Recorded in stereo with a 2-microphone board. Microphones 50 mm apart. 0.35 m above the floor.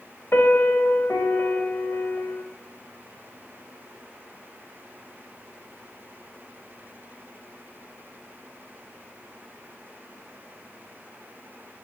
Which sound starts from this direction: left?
A piano, at 0.3 s.